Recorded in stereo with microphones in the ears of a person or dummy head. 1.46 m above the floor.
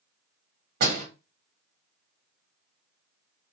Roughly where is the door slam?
Right.